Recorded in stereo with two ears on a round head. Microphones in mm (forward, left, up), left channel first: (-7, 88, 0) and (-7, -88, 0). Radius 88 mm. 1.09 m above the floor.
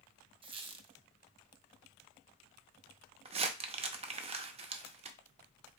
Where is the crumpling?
30° right (ahead or behind), 0.6 m.